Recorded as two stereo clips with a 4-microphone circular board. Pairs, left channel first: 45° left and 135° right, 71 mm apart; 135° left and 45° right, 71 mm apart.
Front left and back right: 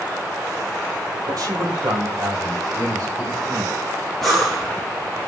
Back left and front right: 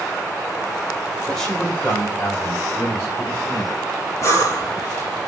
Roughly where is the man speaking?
Behind right.